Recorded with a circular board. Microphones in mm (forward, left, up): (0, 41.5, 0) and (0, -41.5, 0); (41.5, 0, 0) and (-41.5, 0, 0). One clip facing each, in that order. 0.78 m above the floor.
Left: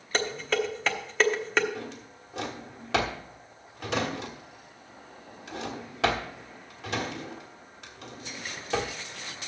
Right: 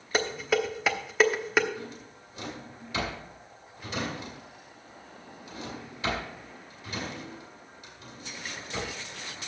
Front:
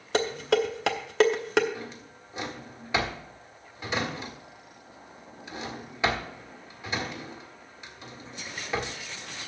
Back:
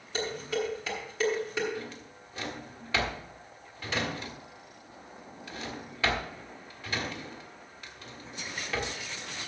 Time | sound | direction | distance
0.1 | dishes clattering | 10° right | 0.9 m
1.8 | a drawer | 75° left | 1.5 m